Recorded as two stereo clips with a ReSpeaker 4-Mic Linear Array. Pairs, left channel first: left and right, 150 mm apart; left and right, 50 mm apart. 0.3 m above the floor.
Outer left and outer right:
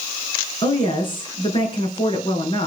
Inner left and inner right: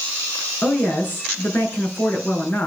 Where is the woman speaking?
35° left (ahead or behind), 5 m.